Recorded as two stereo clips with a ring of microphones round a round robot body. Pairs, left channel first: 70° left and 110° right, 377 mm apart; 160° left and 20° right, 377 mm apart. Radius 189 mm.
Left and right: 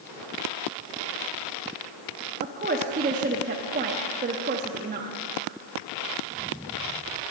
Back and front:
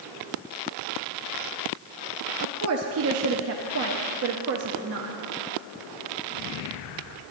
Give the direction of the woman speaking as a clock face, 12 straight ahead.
2 o'clock.